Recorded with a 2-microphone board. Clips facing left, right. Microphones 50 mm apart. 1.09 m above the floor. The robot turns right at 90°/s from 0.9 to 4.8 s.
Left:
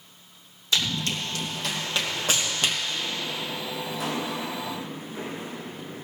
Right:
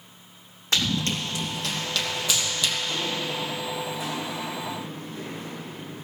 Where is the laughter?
No laughter in this recording.